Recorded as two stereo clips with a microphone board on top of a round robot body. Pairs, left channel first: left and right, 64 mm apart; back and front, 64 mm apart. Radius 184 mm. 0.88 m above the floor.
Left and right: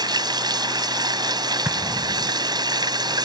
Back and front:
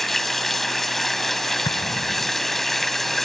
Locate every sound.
0.0 s running water: 95° right
1.6 s an explosion: 150° right